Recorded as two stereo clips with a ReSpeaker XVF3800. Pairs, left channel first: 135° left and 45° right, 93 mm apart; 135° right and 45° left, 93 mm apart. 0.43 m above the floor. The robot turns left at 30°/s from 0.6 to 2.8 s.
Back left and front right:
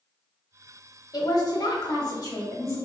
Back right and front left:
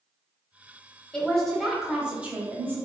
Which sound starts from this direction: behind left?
A woman speaking, at 1.1 s.